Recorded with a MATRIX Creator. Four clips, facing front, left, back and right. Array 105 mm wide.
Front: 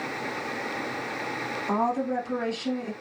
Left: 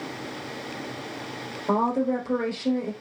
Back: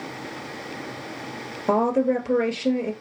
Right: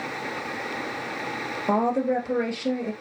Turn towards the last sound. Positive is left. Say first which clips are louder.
# right 1 dB, back 6 dB
turn(degrees=-165)